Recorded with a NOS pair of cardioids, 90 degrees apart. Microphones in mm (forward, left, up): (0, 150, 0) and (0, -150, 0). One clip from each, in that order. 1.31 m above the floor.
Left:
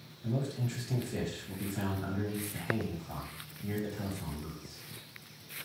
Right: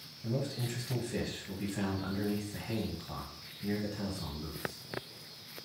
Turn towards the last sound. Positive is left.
turn(degrees=-10)